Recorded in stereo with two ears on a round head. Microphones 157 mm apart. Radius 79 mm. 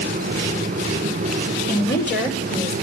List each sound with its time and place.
1.7 s a woman speaking: 75° left (ahead or behind), 2.5 m; by 2.7 s 65° left (ahead or behind), 3 m